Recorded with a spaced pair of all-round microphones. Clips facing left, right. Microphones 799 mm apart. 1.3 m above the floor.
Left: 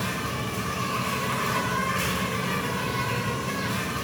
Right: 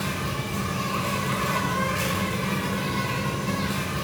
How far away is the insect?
About 4.5 m.